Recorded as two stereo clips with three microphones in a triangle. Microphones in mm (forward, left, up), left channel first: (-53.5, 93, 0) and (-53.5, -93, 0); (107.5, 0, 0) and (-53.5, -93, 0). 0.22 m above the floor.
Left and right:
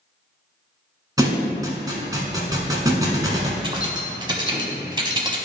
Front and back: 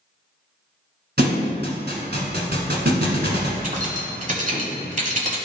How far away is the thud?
About 1.3 m.